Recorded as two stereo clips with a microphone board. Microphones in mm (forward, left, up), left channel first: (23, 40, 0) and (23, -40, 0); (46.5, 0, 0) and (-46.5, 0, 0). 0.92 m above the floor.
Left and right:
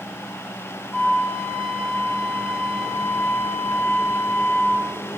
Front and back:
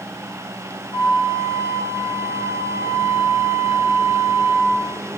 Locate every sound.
0.9 s a flute: 15° left, 0.9 m